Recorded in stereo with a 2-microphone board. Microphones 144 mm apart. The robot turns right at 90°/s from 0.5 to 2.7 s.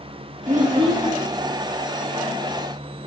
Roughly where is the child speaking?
Ahead right.